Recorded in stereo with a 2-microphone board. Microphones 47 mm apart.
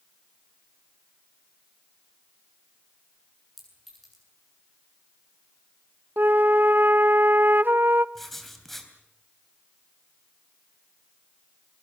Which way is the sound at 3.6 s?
5° left (ahead or behind).